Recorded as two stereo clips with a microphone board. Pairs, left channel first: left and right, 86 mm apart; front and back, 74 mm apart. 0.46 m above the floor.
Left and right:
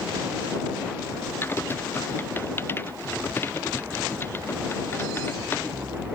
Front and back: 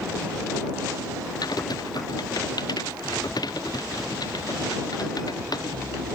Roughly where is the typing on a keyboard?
Ahead left.